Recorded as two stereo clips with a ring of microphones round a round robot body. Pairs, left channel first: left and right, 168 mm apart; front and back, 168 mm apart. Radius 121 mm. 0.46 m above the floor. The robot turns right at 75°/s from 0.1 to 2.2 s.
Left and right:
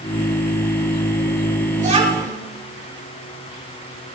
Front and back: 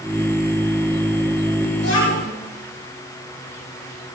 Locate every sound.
1.8 s a child speaking: 50° right, 5.5 m; by 2.3 s 20° right, 5.5 m